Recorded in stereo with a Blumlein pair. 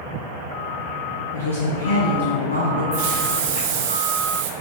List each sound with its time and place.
1.3 s a woman speaking: 65° left, 0.9 m; by 2.8 s 75° left, 2 m
2.9 s a hiss: 50° right, 0.7 m